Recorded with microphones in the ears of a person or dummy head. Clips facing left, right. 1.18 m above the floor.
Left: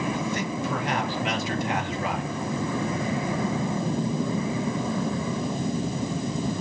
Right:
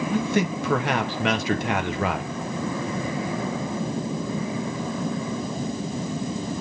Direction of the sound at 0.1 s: 50° right (ahead or behind).